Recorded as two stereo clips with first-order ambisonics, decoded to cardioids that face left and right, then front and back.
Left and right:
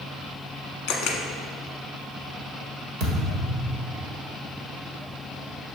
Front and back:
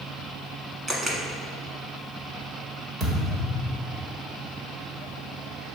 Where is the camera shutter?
110° left, 1.1 m.